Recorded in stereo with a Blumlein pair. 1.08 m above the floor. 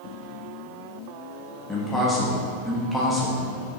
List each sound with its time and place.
1.7 s a man speaking: 5° left, 1.6 m